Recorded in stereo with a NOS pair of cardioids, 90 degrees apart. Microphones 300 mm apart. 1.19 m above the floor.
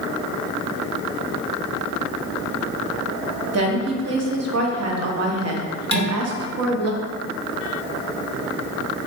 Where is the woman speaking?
55° right, 1.0 m.